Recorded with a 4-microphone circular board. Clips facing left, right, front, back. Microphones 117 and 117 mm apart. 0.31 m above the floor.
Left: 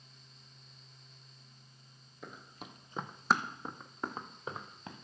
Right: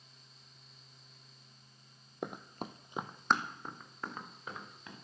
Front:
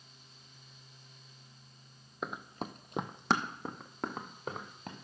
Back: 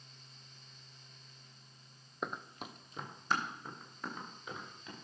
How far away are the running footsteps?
About 0.7 m.